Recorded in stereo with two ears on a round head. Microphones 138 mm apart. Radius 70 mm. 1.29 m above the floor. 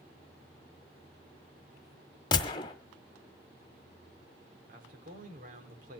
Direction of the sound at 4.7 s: 55° right (ahead or behind).